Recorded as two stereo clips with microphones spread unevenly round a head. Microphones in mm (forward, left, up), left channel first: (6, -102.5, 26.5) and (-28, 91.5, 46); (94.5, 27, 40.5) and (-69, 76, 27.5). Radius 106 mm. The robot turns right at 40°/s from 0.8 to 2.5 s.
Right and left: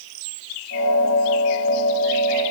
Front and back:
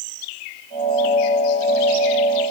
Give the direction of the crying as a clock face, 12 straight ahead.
I don't hear crying.